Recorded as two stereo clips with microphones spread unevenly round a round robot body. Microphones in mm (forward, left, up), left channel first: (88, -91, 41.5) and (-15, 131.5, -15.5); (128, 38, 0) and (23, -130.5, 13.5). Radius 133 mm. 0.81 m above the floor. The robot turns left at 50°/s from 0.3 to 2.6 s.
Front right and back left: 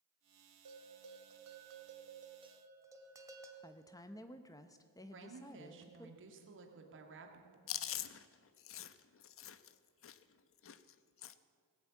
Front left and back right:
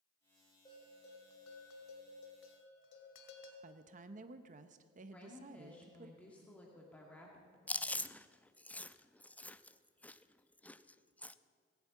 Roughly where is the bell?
Behind left.